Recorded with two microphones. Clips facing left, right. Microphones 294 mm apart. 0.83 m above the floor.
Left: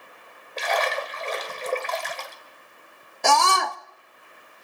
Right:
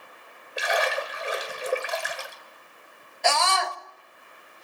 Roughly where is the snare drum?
I don't hear a snare drum.